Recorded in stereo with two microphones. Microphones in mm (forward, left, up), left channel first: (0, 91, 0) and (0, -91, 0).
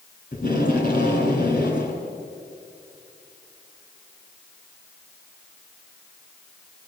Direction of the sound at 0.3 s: 50° left (ahead or behind).